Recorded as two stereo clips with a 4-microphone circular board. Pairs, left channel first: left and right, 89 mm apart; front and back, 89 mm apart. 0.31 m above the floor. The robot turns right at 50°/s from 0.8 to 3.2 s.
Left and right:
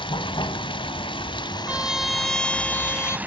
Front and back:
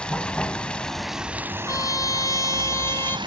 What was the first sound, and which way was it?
Running water, 80° left.